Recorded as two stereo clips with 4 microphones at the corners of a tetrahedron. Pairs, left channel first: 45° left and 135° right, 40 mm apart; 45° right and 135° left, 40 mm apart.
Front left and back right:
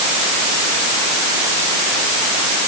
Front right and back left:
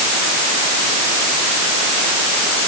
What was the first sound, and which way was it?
Only background noise.